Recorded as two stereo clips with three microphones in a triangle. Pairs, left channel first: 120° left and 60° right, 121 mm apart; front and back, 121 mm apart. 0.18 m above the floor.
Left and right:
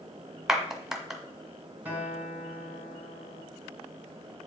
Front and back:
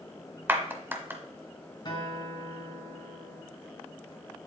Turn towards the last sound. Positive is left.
turn(degrees=5)